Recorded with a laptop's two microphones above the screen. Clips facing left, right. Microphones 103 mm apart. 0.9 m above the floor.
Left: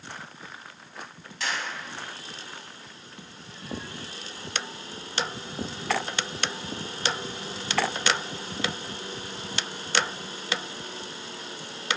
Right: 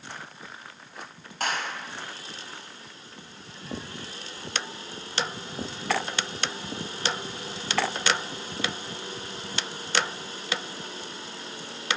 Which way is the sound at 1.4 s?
50° right (ahead or behind).